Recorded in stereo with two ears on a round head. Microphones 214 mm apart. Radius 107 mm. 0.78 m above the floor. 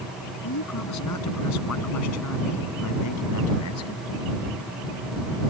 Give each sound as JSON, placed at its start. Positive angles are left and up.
{"t": 0.4, "sound": "a man speaking", "side_deg": 85}